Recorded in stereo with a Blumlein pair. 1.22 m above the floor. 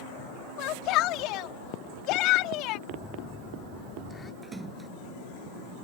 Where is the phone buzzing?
15° left.